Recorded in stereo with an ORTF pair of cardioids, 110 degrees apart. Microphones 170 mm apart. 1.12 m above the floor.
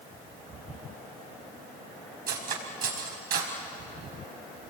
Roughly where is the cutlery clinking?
Ahead right.